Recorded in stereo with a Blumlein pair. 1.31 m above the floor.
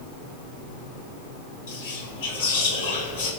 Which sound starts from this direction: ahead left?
Whispering, at 1.7 s.